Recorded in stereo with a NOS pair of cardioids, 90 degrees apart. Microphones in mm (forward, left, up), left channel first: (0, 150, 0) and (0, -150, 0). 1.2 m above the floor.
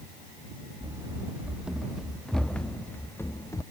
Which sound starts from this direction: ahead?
Running footsteps, at 0.8 s.